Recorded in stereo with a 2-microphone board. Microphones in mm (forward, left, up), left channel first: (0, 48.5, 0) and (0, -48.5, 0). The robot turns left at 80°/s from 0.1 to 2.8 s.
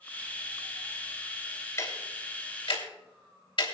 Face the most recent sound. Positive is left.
turn(degrees=65)  # may be behind; listen again after turning